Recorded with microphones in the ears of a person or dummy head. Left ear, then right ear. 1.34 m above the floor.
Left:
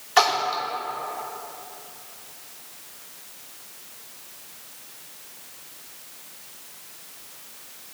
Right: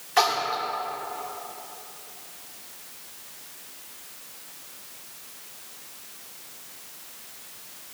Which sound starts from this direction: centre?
A splash, at 0.2 s.